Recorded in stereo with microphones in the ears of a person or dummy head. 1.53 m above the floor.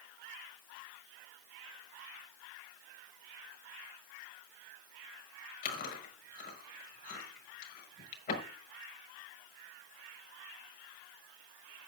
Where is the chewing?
50° left (ahead or behind), 6 m.